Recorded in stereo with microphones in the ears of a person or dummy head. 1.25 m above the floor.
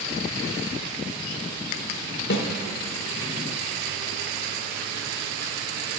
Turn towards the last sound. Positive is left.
turn(degrees=60)  # may be behind; listen again after turning